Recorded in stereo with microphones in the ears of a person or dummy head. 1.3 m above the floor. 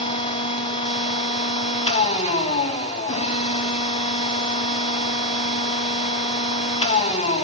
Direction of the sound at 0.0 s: 40° left (ahead or behind).